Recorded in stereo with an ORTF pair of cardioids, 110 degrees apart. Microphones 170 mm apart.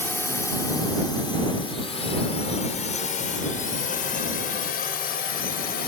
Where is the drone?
10° left; by 5.9 s 60° left.